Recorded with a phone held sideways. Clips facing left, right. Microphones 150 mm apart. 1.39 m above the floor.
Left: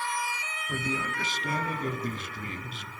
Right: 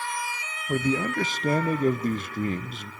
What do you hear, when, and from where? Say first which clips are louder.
0.7 s a man speaking: right 8 dB; 50° right (ahead or behind), 0.6 m